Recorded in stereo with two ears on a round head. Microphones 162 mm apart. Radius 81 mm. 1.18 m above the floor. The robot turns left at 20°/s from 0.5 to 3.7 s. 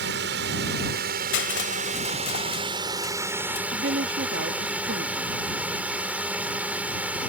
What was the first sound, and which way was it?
A drone, 110° right.